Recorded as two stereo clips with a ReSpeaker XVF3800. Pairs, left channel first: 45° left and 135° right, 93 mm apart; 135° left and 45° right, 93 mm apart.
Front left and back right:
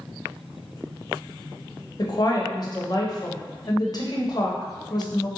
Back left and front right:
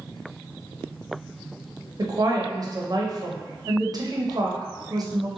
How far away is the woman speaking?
About 0.5 m.